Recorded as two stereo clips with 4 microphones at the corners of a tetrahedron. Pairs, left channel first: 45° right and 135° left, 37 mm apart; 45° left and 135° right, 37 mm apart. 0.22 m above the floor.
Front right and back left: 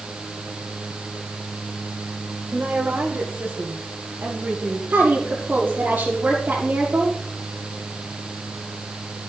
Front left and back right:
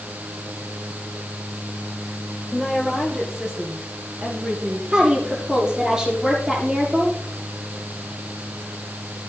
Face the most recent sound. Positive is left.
turn(degrees=155)